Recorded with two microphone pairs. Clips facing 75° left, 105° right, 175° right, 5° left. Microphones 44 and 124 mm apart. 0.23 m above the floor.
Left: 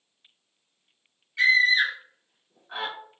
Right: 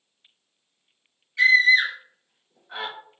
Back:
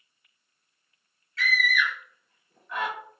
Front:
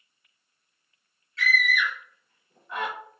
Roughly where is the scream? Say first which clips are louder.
Right 3 dB, front 1 dB; ahead.